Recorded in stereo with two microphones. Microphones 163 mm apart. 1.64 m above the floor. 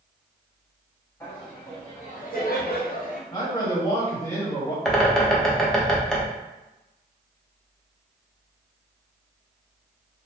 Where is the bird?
5° left (ahead or behind), 0.7 m.